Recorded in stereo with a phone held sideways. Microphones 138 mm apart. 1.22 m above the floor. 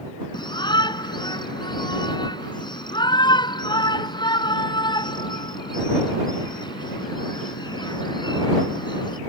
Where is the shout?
35° left (ahead or behind).